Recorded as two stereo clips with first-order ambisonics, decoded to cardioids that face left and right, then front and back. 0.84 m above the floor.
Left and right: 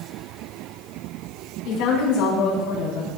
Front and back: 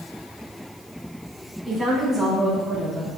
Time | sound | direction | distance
1.6 | a woman speaking | 100° left | 6.5 m